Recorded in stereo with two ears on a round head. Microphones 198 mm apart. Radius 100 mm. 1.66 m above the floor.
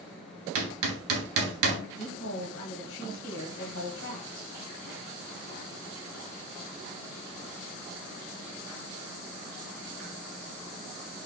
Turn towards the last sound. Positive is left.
turn(degrees=70)  # may be behind; listen again after turning